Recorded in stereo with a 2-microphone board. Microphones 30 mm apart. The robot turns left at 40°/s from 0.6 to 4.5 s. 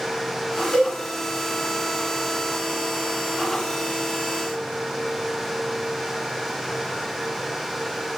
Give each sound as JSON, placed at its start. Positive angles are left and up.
{"t": 0.7, "sound": "a cowbell", "side_deg": 50, "distance_m": 1.9}